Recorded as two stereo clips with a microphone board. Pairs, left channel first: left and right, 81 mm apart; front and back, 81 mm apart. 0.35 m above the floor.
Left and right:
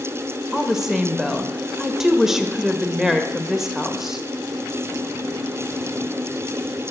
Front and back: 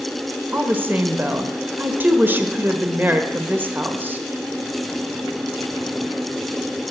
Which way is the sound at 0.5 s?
165° right.